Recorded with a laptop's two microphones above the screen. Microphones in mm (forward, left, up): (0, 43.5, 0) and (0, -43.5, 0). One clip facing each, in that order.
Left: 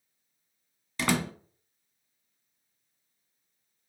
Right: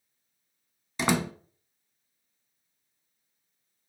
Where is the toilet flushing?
No toilet flushing in this recording.